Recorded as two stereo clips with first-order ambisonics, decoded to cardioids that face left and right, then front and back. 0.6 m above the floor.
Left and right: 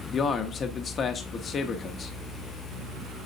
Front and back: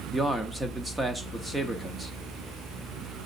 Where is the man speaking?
105° left, 0.6 m.